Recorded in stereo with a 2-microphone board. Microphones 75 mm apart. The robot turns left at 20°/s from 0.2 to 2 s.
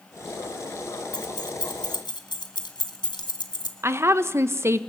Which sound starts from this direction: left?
Keys jangling, at 1.1 s.